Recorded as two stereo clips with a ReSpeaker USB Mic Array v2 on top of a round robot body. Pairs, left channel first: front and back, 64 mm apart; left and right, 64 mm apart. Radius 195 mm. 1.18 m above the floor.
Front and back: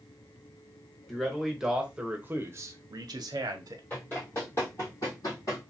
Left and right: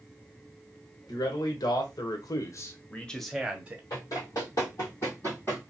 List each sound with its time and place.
1.1 s a man speaking: 90° left, 1.1 m; by 3.8 s 160° right, 0.7 m
3.9 s running footsteps: 65° left, 1.6 m; by 5.6 s 25° left, 1.8 m